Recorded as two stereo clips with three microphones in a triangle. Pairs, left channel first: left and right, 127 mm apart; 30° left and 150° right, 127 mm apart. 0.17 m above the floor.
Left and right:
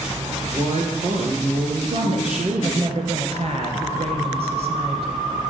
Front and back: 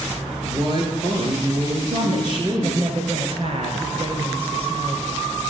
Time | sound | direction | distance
0.4 | a woman speaking | 105° right | 3 m
1.9 | a woman speaking | 115° right | 2 m